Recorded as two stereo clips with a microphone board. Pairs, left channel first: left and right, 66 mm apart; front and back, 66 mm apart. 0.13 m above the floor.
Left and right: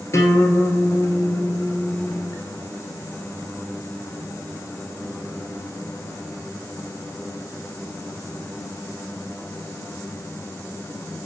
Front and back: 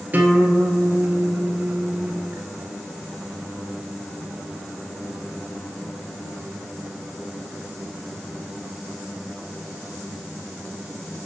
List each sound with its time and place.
0.1 s a guitar: 120° left, 1.5 m